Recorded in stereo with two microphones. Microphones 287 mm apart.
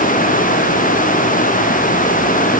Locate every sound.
Only background noise.